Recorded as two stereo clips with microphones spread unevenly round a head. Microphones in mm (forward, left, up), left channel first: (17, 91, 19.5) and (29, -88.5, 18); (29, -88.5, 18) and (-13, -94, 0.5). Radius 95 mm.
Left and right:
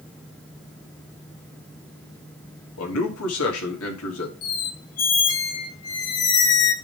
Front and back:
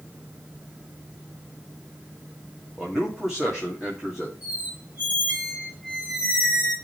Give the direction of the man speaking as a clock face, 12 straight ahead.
9 o'clock.